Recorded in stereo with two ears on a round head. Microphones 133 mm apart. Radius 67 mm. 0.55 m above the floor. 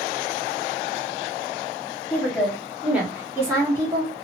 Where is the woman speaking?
5° left (ahead or behind), 1.4 m; by 4.1 s 30° right (ahead or behind), 1.2 m.